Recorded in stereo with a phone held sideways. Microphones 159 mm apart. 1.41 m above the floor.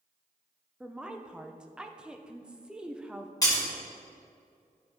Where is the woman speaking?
5° right (ahead or behind), 0.5 m.